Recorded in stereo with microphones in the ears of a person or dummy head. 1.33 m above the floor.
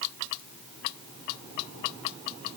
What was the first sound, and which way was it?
Only background noise.